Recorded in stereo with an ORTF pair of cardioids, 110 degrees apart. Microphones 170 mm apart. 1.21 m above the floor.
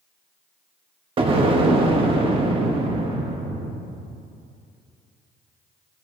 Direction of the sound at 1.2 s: 35° right.